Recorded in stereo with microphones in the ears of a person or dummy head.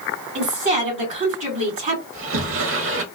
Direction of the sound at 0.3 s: 40° right (ahead or behind).